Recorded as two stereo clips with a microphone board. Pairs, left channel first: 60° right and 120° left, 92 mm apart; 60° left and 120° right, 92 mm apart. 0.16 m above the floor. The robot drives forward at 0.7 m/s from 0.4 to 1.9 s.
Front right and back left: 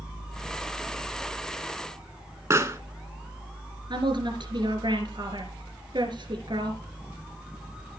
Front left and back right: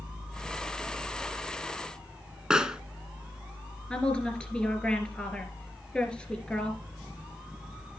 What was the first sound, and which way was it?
A pop, 160° left.